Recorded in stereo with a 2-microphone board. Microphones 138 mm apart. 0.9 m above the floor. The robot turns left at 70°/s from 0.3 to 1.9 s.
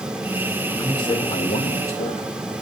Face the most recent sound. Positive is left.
turn(degrees=80)